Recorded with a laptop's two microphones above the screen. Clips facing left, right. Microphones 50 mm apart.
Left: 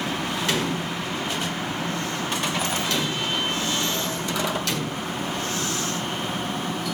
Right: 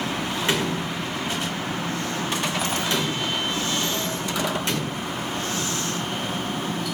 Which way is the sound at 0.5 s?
25° right (ahead or behind).